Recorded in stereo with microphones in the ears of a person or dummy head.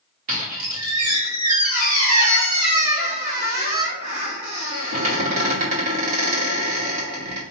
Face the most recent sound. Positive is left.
turn(degrees=-40)  # may be behind; listen again after turning